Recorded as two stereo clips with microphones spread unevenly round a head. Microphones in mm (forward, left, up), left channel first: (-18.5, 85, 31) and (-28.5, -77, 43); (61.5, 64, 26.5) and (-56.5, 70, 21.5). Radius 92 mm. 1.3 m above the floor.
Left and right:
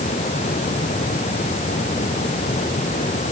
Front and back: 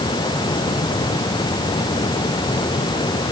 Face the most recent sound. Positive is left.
No sound to turn to.